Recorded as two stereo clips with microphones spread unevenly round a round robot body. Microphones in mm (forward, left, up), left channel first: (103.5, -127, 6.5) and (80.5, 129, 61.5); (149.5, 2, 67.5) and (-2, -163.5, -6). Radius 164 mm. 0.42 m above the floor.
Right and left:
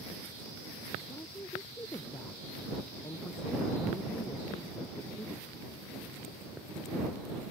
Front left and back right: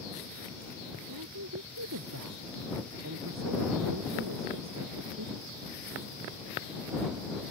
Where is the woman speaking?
170° right.